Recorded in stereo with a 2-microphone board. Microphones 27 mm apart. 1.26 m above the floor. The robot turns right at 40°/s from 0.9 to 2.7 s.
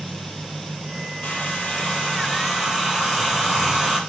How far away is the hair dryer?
About 6 m.